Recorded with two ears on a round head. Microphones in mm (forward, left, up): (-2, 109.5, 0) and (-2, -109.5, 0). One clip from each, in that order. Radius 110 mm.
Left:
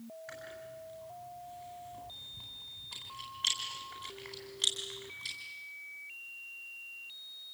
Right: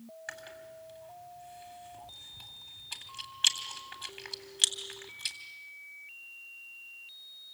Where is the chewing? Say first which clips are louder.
Right 4 dB; 70° right (ahead or behind), 3.5 m.